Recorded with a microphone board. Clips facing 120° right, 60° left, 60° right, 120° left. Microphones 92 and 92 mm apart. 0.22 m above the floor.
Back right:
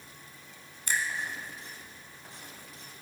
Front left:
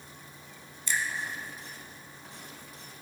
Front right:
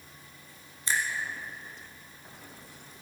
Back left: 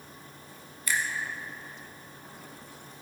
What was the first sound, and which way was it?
A finger snap, 115° right.